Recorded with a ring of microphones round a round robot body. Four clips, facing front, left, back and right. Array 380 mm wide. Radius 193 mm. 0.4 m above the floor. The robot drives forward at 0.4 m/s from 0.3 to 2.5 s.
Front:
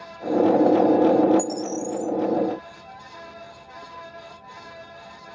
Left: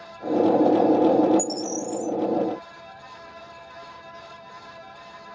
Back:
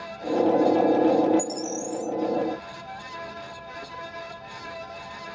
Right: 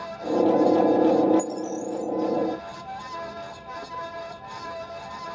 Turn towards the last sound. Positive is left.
turn(degrees=130)